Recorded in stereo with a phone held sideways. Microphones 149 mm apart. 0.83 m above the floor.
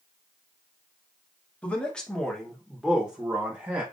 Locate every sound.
1.6 s a man speaking: 10° left (ahead or behind), 1.0 m; by 3.8 s 15° right (ahead or behind), 0.9 m